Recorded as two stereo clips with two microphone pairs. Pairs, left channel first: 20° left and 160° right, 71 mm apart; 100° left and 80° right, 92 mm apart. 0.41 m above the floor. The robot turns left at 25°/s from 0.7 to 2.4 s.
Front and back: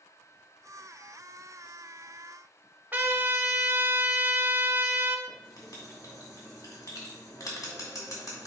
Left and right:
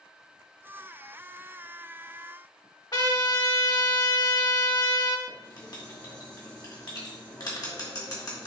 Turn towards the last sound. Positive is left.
turn(degrees=55)